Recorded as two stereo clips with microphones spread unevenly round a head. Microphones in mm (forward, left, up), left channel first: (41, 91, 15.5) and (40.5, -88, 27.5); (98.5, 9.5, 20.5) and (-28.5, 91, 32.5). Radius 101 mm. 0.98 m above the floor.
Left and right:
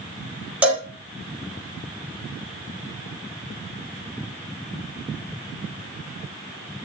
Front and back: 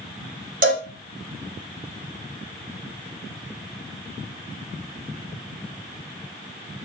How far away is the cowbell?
About 1.4 m.